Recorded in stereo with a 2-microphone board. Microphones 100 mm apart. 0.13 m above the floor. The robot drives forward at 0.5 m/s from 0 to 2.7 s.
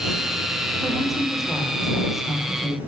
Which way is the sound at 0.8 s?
Centre (ahead or behind).